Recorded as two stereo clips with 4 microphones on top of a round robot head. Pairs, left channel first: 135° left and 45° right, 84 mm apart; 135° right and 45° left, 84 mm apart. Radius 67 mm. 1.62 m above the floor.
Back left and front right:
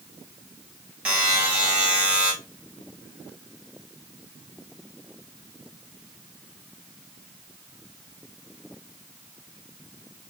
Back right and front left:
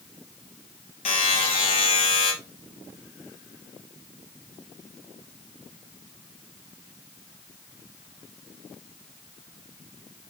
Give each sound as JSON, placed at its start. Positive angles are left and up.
{"t": 1.1, "sound": "a buzzer", "azimuth_deg": -115, "distance_m": 1.0}